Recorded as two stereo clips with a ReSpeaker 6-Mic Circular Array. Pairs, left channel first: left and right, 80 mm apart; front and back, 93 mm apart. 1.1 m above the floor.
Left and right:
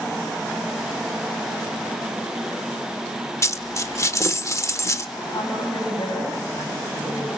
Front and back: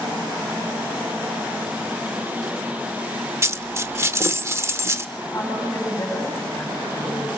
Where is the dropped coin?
125° left, 1.0 m.